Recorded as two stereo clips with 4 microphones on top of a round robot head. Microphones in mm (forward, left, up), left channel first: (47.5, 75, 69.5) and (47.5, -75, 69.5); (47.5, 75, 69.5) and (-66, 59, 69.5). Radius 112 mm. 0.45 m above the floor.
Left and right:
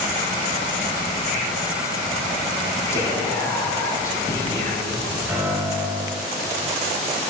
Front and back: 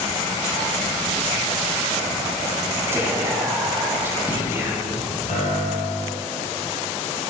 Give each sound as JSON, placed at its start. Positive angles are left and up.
{"t": 2.9, "sound": "whispering", "azimuth_deg": 140, "distance_m": 1.2}
{"t": 5.3, "sound": "a piano", "azimuth_deg": -5, "distance_m": 1.7}